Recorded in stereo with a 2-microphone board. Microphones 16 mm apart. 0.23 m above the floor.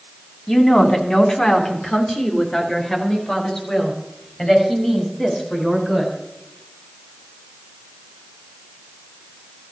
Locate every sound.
0.5 s a woman speaking: 45° left (ahead or behind), 2.5 m; by 6.1 s 25° left (ahead or behind), 7.5 m